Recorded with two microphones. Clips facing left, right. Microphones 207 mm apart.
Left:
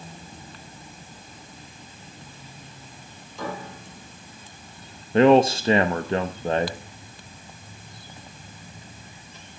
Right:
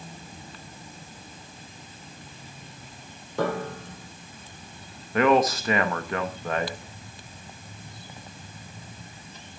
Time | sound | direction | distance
3.4 | a piano | 65° right (ahead or behind) | 1.6 m
5.1 | a man speaking | 30° left (ahead or behind) | 0.9 m